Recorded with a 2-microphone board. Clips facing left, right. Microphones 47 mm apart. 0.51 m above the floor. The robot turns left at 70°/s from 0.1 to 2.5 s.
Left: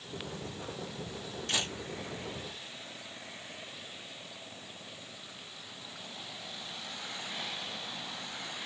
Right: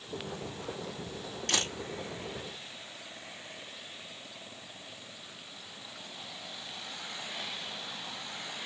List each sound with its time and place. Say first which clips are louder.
1.5 s a camera shutter: right 2 dB; 65° right (ahead or behind), 3.5 m; by 1.7 s 80° right, 3.5 m